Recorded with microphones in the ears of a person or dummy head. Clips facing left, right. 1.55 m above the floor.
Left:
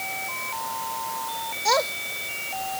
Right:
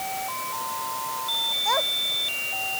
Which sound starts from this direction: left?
A child speaking, at 1.6 s.